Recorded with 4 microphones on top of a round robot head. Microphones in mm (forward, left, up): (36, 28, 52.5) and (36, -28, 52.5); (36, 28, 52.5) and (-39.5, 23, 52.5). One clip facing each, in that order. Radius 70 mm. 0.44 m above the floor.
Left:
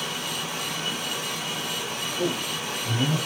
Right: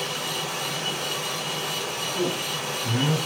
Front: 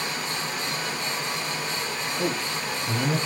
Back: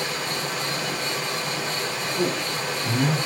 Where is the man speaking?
140° right, 6 m.